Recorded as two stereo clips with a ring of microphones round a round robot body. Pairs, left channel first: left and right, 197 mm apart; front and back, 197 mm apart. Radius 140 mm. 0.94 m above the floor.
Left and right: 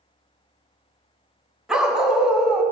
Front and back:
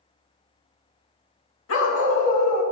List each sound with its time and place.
1.7 s a dog barking: 5° right, 2 m